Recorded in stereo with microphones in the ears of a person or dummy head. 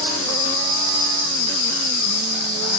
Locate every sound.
0.0 s an insect: 30° right (ahead or behind), 3 m